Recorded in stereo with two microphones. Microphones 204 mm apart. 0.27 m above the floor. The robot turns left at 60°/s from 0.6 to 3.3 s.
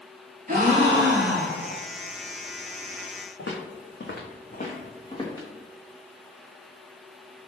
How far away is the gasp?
About 0.7 m.